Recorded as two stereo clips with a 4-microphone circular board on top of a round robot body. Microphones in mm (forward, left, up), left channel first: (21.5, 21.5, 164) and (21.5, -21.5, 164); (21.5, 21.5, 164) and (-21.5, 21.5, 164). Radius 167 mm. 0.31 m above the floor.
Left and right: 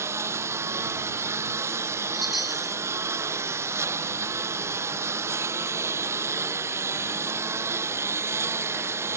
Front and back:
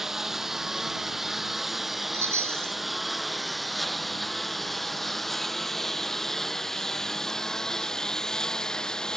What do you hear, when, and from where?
0.0 s a lawn mower: 100° right; by 9.2 s 75° right
2.1 s a chime: straight behind